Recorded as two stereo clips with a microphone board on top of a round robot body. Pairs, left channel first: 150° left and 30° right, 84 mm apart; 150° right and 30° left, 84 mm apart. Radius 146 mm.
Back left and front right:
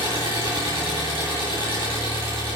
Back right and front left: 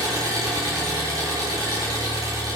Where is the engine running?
20° right, 8.5 m.